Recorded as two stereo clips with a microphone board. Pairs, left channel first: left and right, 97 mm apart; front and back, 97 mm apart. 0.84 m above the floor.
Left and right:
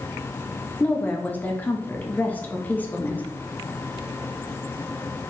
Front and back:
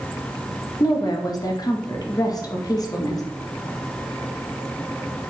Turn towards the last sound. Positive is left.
turn(degrees=25)